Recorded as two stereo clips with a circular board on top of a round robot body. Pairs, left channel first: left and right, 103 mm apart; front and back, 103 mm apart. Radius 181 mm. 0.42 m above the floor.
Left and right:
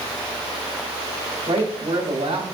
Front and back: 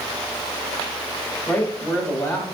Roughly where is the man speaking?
Right.